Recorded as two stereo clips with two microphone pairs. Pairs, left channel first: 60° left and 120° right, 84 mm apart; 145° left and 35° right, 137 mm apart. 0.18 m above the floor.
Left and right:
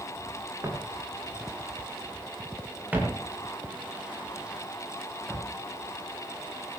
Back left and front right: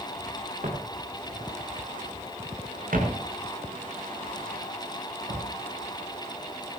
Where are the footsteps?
70° right, 8 m; by 5.6 s 35° right, 12.5 m.